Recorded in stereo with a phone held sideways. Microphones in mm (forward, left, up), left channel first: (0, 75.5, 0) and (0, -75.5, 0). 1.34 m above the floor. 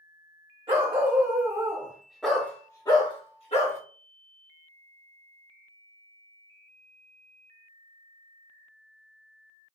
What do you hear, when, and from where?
0.7 s a dog barking: 35° right (ahead or behind), 1.2 m; by 3.8 s 45° left (ahead or behind), 1.1 m